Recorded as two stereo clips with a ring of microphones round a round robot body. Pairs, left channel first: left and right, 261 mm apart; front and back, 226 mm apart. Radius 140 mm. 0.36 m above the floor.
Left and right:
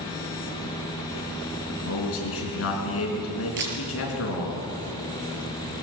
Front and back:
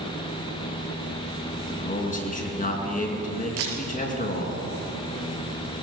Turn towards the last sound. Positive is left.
turn(degrees=-140)